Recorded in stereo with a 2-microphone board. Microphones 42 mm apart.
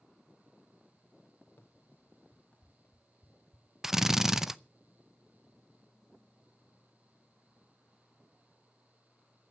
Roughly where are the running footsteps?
Left.